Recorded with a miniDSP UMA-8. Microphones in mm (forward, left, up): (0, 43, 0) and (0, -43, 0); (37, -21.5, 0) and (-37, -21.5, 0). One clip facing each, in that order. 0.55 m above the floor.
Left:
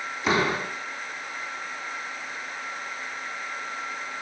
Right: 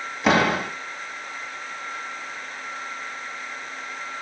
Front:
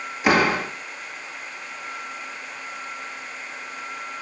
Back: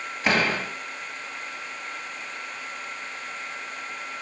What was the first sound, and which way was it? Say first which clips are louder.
A door slam: right 5 dB, front 5 dB; 80° right.